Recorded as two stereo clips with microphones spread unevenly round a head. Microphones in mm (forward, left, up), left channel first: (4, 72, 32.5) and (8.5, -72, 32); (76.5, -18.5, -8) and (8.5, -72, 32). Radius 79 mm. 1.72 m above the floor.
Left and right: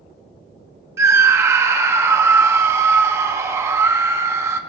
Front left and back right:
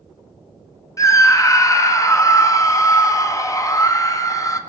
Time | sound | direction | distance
1.0 | a scream | 15° right | 1.4 m